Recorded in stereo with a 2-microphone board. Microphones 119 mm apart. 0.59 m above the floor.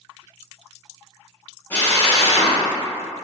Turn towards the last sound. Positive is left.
turn(degrees=15)  # may be behind; listen again after turning